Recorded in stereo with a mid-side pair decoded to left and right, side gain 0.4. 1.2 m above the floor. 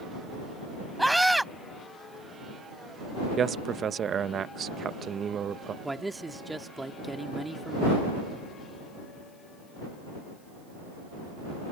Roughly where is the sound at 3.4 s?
Ahead right.